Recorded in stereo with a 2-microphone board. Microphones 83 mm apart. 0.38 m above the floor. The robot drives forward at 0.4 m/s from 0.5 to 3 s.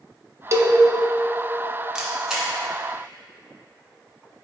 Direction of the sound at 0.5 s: 40° right (ahead or behind).